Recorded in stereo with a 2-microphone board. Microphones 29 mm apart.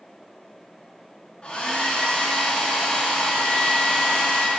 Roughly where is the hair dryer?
Left.